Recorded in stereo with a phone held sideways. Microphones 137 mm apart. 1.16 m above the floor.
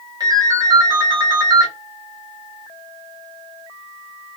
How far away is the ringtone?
About 1.4 m.